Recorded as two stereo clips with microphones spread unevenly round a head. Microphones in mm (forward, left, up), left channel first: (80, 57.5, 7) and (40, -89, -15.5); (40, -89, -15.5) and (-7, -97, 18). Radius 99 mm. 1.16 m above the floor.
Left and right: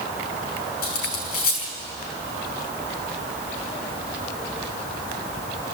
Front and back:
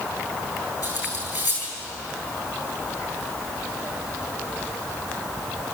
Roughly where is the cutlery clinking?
Ahead left.